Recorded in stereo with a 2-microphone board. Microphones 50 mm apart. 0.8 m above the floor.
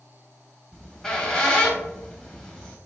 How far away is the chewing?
I don't hear chewing.